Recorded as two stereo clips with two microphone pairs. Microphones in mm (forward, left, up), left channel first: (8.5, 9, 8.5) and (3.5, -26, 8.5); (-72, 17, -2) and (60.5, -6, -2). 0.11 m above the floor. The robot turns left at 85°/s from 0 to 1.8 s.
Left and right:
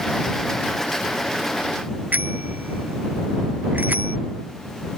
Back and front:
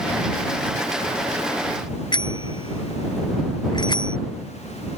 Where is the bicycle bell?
135° right.